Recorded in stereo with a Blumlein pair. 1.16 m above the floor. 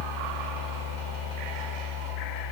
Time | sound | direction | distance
0.0 | a fan | 40° left | 1.6 m